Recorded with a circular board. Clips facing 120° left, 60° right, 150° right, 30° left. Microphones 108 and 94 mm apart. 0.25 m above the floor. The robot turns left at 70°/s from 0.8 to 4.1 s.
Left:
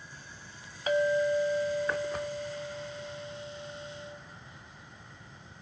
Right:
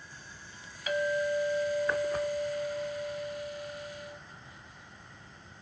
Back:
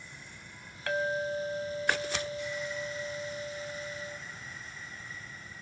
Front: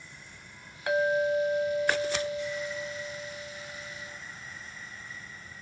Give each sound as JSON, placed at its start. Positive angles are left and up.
{"t": 0.9, "sound": "a clink", "azimuth_deg": 95, "distance_m": 1.1}